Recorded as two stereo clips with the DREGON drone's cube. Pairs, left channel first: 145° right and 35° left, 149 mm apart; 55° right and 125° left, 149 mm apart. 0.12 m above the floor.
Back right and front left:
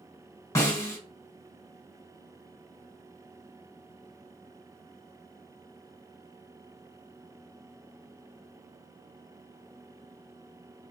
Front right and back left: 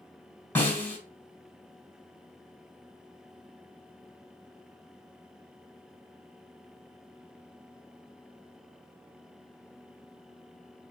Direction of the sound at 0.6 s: 115° right.